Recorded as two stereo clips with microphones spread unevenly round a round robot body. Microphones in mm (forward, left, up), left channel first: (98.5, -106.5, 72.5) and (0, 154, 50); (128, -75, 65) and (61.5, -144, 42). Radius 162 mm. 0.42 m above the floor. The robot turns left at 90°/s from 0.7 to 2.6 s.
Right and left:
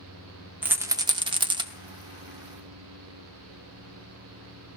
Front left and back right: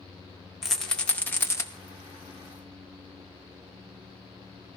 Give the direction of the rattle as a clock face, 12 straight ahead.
6 o'clock.